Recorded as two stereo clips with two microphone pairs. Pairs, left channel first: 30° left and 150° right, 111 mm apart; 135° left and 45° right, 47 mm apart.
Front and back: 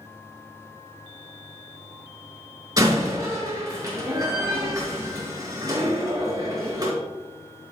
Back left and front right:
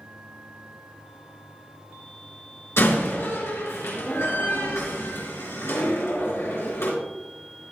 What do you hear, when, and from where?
2.8 s a door slam: 155° left, 3.5 m